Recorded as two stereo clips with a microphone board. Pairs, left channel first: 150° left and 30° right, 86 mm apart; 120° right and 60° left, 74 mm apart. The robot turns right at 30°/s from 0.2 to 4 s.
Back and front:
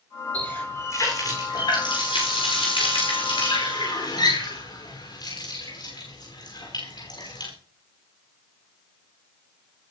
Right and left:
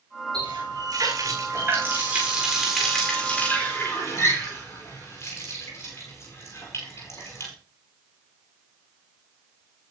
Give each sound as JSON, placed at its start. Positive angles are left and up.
{"t": 0.3, "sound": "a running tap", "azimuth_deg": 75, "distance_m": 9.0}